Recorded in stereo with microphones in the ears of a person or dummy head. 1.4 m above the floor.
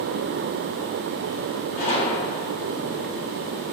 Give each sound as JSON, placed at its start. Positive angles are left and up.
{"t": 1.8, "sound": "a gunshot", "side_deg": 40, "distance_m": 1.4}